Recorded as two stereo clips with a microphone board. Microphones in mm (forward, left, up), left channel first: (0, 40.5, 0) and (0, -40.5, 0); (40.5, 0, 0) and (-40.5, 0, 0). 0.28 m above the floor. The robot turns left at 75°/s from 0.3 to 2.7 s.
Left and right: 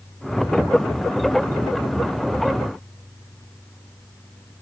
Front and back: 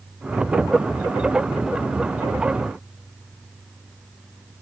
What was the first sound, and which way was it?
Only background noise.